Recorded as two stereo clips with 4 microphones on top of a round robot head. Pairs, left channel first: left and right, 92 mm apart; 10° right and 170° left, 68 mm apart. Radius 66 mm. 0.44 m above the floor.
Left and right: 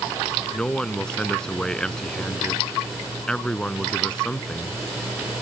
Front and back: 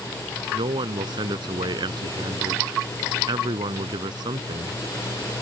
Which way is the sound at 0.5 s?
170° left.